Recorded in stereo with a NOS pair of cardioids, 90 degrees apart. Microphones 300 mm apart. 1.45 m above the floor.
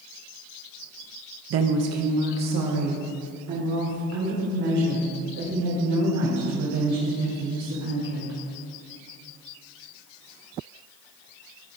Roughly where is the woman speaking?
Ahead right.